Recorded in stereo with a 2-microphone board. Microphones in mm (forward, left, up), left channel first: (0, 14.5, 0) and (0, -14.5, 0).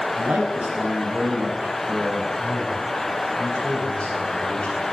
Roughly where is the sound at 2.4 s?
Left.